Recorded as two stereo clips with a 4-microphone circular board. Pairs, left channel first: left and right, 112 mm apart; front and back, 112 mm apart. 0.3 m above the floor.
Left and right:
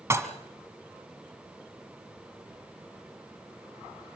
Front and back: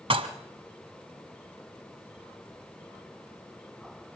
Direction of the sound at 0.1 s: 150° right.